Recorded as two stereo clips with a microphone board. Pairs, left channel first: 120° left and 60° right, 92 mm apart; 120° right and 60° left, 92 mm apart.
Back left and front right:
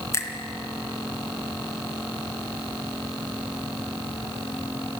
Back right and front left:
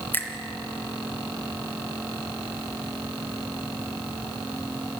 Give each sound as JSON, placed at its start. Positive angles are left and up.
{"t": 0.1, "sound": "a finger snap", "azimuth_deg": 175, "distance_m": 2.5}